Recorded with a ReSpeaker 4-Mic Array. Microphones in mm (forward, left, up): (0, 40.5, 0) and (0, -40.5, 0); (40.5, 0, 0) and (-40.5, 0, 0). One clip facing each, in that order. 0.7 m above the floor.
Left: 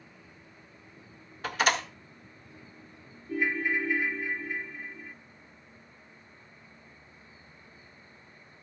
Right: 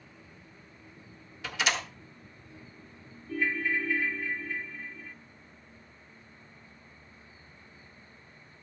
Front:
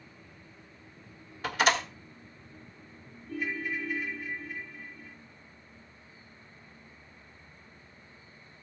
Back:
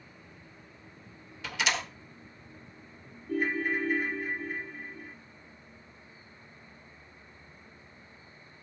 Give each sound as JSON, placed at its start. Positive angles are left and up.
{"t": 1.4, "sound": "a door slam", "azimuth_deg": 45, "distance_m": 1.3}
{"t": 3.3, "sound": "a ringtone", "azimuth_deg": 155, "distance_m": 0.7}